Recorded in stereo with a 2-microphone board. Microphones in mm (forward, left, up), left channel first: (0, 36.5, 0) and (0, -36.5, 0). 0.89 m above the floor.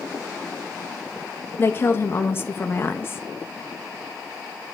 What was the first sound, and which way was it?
A woman speaking, 35° left (ahead or behind).